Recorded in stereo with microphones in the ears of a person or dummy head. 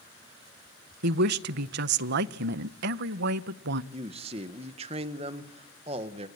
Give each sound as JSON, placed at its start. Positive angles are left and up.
{"t": 1.0, "sound": "a woman speaking", "side_deg": -55, "distance_m": 0.5}
{"t": 3.9, "sound": "a man speaking", "side_deg": -25, "distance_m": 1.2}